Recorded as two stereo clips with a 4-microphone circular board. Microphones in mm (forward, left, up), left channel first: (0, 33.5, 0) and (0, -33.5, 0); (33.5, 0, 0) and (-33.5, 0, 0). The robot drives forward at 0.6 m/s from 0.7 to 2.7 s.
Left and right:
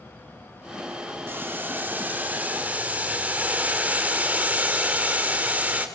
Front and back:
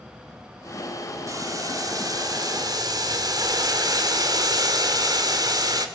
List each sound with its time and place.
1.3 s boiling: 150° right, 1.8 m; by 5.9 s 160° right, 2.5 m